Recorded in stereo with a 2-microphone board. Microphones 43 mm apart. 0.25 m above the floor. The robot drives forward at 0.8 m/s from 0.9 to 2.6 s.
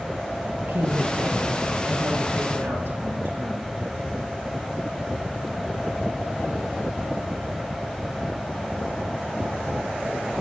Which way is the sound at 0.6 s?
70° right (ahead or behind).